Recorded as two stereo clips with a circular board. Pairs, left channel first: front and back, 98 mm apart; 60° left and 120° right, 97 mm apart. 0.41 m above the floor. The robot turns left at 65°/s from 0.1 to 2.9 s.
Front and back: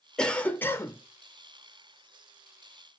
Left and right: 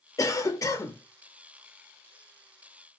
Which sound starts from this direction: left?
A cough, at 0.2 s.